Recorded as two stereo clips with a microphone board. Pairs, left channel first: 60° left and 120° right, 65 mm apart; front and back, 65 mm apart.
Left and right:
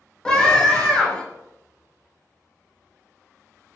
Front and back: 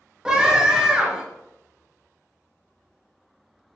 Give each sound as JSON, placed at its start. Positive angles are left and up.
{"t": 0.2, "sound": "a scream", "azimuth_deg": 120, "distance_m": 1.0}